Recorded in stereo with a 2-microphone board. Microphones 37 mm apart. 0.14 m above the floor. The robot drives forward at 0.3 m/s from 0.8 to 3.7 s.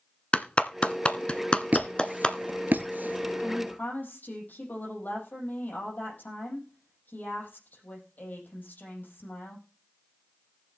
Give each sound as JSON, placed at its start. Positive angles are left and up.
{"t": 0.3, "sound": "a clap", "side_deg": 30, "distance_m": 1.0}
{"t": 1.7, "sound": "a squeak", "side_deg": -55, "distance_m": 1.1}
{"t": 3.4, "sound": "a woman speaking", "side_deg": 55, "distance_m": 6.0}